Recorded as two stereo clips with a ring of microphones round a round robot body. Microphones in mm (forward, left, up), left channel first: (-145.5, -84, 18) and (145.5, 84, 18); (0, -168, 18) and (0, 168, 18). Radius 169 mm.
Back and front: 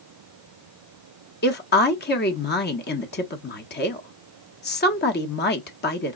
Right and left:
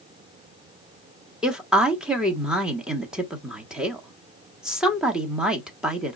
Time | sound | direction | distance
1.4 | a woman speaking | 175° left | 1.3 m